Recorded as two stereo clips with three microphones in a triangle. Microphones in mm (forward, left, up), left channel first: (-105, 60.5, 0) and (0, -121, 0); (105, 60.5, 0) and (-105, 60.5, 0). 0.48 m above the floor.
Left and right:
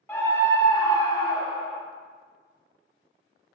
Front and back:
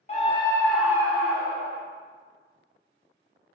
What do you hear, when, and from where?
0.1 s a scream: 45° left, 0.9 m; by 1.8 s 165° right, 1.0 m